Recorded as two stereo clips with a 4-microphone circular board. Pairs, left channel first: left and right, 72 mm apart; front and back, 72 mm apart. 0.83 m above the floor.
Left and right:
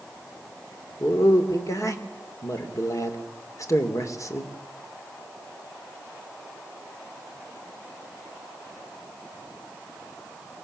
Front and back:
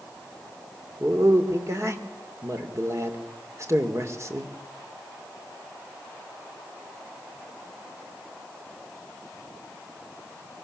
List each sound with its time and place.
1.0 s a man speaking: 130° left, 2 m